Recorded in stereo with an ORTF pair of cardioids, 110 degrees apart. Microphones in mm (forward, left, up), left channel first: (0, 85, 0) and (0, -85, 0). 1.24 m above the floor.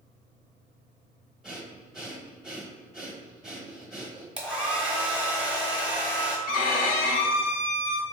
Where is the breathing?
5° right, 0.9 m.